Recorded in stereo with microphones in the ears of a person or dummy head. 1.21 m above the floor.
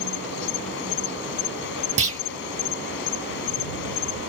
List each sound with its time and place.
0.0 s an insect: 65° left (ahead or behind)
2.0 s a clunk: 40° right (ahead or behind)